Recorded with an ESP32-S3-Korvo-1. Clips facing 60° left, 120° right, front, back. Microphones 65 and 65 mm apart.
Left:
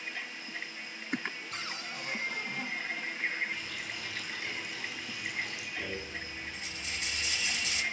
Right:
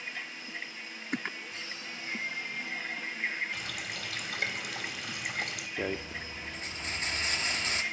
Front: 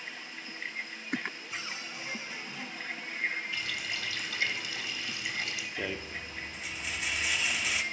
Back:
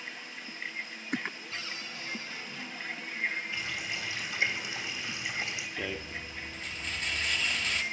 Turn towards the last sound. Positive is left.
turn(degrees=-85)